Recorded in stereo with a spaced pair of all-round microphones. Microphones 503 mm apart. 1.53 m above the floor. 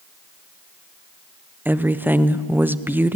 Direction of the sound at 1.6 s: 5° right (ahead or behind).